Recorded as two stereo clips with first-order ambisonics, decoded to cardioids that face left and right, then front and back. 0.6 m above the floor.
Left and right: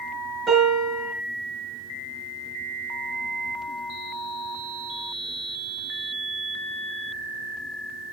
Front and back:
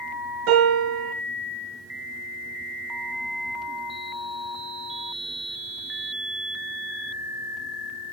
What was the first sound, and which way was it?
A piano, straight behind.